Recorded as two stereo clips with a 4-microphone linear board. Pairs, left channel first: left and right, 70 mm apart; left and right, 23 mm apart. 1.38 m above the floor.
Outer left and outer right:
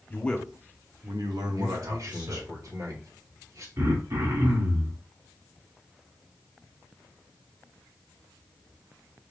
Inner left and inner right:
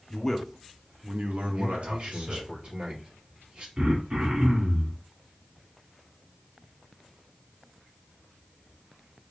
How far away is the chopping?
I don't hear chopping.